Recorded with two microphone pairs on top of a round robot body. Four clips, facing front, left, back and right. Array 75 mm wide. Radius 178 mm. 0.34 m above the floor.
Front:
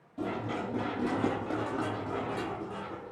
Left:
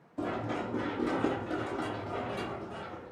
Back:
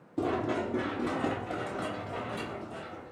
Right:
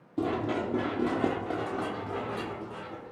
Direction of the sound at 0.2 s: 125° right.